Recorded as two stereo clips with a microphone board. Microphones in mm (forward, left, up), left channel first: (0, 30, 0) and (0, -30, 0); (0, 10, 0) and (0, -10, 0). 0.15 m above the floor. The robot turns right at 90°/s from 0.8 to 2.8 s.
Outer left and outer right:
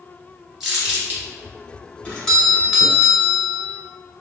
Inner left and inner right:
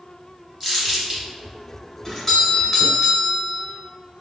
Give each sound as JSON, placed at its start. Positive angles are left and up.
{"t": 0.6, "sound": "crumpling", "side_deg": -5, "distance_m": 1.8}
{"t": 2.0, "sound": "a doorbell", "side_deg": 20, "distance_m": 1.5}